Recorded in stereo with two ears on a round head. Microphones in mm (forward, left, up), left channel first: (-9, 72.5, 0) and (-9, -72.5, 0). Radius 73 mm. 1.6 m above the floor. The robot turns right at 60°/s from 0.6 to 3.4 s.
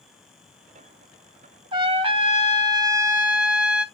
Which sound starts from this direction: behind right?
A trumpet, at 1.7 s.